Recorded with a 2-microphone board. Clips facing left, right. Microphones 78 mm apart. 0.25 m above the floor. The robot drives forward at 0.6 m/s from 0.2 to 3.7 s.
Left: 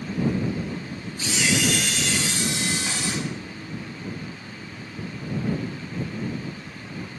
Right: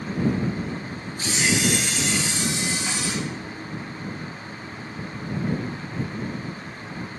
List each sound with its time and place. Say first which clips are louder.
1.2 s a camera shutter: even; 35° right (ahead or behind), 0.8 m; by 3.1 s 15° right (ahead or behind), 1.9 m